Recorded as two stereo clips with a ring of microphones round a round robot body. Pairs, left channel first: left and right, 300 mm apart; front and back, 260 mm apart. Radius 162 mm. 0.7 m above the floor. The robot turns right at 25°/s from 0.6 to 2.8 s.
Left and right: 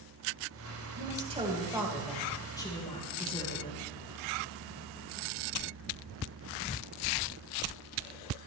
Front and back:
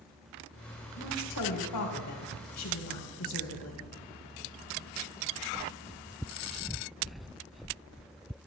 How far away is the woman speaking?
About 4 m.